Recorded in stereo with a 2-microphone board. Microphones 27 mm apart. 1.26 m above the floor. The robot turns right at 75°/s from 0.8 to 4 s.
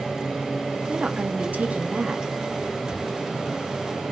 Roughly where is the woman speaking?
Behind right.